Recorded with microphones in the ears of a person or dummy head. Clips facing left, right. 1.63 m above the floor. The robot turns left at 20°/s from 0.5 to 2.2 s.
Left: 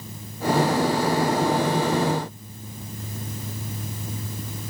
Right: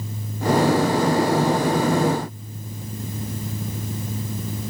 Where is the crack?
I don't hear a crack.